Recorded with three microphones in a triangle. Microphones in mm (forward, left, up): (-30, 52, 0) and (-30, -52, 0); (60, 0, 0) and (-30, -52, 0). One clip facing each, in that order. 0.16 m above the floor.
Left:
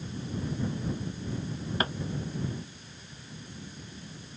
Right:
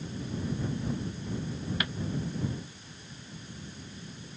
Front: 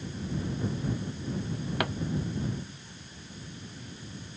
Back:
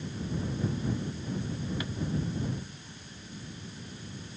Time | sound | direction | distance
1.8 | a pop | 40° left | ?